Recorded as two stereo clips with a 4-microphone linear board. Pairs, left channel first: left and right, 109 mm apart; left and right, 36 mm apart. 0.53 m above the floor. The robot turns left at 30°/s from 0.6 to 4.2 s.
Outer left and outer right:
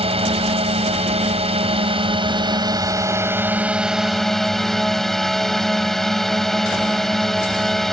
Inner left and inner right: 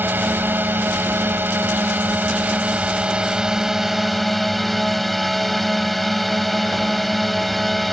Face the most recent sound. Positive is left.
turn(degrees=180)